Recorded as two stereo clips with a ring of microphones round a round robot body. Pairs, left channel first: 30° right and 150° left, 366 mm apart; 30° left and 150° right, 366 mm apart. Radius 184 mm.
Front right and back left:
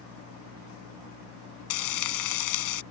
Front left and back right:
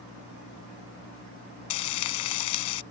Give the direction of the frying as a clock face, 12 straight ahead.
12 o'clock.